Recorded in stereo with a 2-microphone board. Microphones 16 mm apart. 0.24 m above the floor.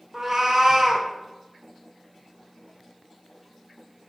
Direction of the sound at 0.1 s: 35° right (ahead or behind).